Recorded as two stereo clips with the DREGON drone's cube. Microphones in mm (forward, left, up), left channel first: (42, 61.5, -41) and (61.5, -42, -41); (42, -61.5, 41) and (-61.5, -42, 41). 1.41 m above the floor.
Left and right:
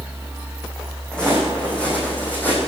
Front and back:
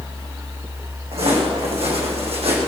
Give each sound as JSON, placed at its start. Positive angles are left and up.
{"t": 1.1, "sound": "footsteps", "azimuth_deg": 180, "distance_m": 5.5}